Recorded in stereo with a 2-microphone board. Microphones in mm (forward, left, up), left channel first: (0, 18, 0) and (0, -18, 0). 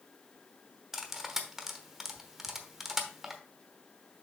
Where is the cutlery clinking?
10° right (ahead or behind), 1.0 m.